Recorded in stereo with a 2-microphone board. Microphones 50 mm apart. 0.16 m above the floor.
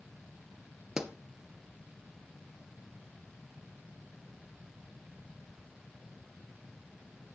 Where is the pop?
10° right (ahead or behind), 1.7 m.